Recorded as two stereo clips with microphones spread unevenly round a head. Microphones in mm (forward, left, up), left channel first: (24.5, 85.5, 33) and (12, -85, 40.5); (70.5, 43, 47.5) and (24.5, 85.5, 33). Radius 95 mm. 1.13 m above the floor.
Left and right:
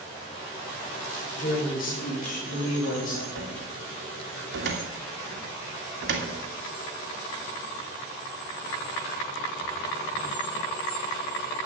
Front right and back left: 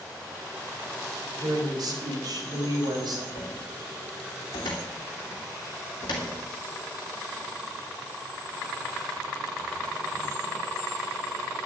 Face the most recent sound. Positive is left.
turn(degrees=-80)